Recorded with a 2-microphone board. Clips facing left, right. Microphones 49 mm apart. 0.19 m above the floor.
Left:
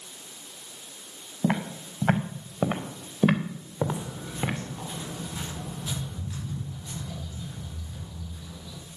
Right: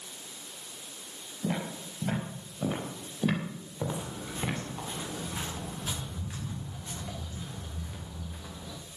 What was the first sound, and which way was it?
Footsteps, 60° left (ahead or behind).